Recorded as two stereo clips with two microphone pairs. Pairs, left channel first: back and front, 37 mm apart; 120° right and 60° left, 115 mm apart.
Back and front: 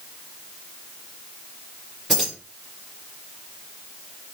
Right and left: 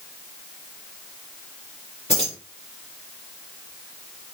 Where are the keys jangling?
100° right, 3.5 m.